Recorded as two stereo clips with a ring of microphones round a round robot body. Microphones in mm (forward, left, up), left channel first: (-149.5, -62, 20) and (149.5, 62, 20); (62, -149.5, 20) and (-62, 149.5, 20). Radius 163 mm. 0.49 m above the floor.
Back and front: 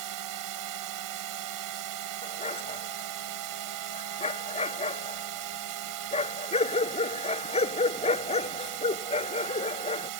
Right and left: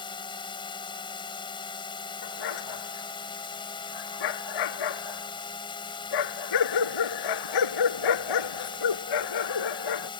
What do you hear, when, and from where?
0.0 s a drone: 5° left
2.2 s a dog barking: 85° right